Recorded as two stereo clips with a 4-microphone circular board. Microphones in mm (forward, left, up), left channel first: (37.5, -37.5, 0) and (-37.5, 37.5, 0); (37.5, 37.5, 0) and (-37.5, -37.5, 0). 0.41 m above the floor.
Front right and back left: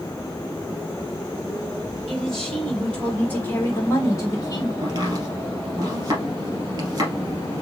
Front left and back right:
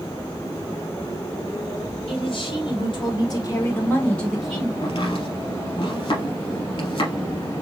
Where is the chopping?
80° left, 3 m.